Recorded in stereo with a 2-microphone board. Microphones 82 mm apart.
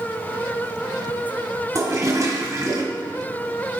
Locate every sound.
1.8 s a toilet flushing: 40° right (ahead or behind), 1.6 m